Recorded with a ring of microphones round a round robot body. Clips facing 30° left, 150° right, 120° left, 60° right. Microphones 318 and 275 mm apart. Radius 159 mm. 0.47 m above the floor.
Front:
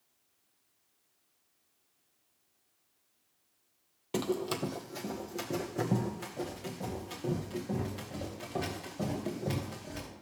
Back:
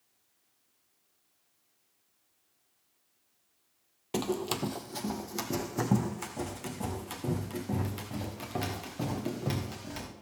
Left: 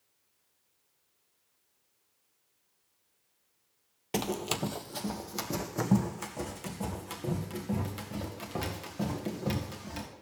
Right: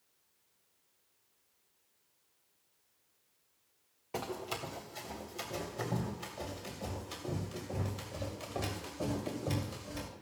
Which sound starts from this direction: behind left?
Running footsteps, at 4.1 s.